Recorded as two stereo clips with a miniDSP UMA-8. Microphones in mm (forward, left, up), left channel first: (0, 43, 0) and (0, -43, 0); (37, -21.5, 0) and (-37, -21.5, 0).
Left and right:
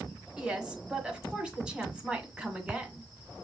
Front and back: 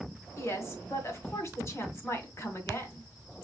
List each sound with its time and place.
0.4 s a woman speaking: 15° right, 1.8 m